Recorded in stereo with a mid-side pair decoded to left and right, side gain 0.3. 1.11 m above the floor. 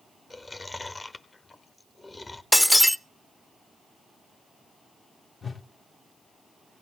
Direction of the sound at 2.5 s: 10° left.